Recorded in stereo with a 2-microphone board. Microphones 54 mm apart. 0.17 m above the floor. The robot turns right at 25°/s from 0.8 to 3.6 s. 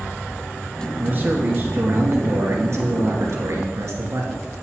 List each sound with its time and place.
1.0 s a man speaking: 140° right, 2.5 m; by 4.4 s 75° right, 2.5 m